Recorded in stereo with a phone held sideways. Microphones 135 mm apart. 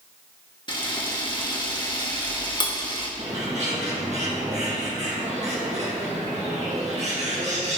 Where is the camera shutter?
35° left (ahead or behind), 1.3 m.